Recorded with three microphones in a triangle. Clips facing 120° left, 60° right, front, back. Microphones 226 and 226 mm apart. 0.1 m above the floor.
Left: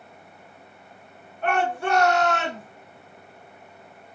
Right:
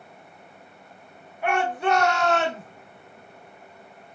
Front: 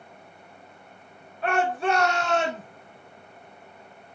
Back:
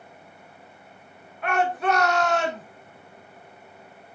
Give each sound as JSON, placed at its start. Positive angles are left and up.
{"t": 1.4, "sound": "a shout", "azimuth_deg": 10, "distance_m": 1.2}